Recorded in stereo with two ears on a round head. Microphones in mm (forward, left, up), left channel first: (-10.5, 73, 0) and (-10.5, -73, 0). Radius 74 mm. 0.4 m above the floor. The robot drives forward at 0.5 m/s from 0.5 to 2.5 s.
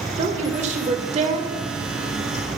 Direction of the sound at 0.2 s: 40° right (ahead or behind).